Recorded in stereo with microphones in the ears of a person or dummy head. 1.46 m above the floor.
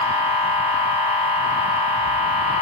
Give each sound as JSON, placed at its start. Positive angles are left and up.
{"t": 0.0, "sound": "a machine running", "side_deg": 40, "distance_m": 7.5}